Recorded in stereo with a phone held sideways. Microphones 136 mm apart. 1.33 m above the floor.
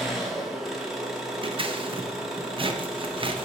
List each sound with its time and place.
0.0 s an engine running: centre (ahead or behind), 1.2 m
1.4 s scissors: 40° right (ahead or behind), 0.6 m